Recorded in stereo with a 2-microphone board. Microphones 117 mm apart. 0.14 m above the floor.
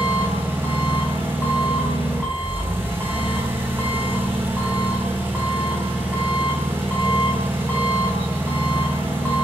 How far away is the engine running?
About 1.7 m.